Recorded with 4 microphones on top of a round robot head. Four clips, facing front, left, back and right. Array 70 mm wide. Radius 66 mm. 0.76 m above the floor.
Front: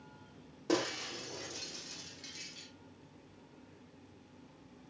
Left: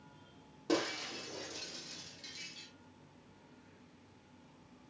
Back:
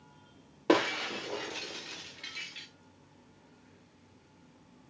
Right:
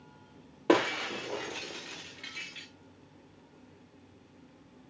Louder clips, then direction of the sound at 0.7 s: Right 9 dB, back 7 dB; 130° right.